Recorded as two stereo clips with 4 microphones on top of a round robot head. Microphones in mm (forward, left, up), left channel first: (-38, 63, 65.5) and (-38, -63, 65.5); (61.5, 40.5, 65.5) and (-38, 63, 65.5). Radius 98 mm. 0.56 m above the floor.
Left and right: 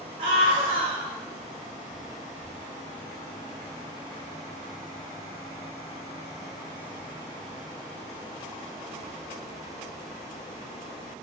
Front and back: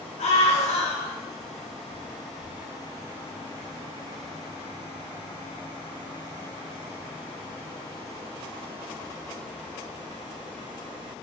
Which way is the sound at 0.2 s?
35° right.